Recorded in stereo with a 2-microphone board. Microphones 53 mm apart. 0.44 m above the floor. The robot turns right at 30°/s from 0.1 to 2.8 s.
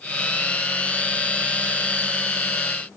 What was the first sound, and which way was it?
Only background noise.